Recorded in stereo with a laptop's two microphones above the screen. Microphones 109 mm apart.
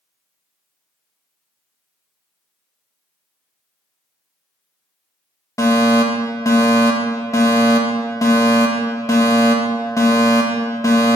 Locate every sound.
5.6 s a fire alarm: 30° left (ahead or behind), 1.8 m